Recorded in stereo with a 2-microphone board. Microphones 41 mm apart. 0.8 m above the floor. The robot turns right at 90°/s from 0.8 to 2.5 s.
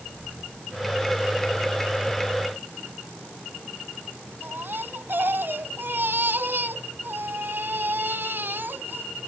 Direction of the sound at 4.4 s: 55° right (ahead or behind).